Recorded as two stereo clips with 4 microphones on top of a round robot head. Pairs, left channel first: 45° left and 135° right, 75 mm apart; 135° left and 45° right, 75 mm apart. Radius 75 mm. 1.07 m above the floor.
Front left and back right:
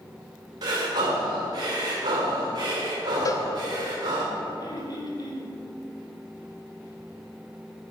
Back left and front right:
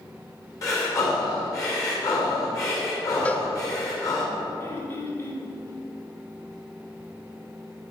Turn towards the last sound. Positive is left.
turn(degrees=75)